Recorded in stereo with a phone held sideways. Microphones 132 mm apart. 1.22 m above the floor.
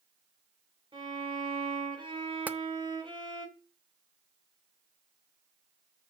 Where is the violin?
40° right (ahead or behind), 2.5 m.